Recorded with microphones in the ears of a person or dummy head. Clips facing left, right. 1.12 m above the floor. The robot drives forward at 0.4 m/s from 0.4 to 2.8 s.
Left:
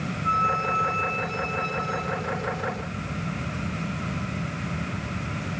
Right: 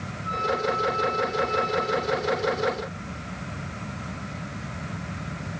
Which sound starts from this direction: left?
A flute, at 0.2 s.